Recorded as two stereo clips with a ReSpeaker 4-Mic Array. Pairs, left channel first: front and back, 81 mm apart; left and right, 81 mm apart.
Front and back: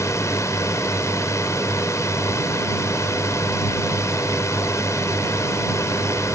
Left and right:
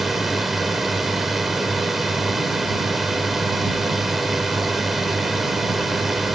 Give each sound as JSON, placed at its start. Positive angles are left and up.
{"t": 0.0, "sound": "a drone", "azimuth_deg": -5}